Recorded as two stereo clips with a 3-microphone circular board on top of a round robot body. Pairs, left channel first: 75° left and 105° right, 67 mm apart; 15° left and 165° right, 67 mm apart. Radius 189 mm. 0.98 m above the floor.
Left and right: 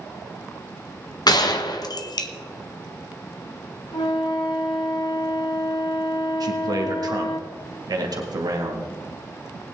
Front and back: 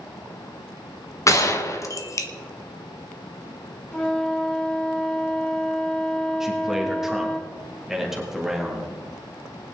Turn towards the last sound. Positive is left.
turn(degrees=-80)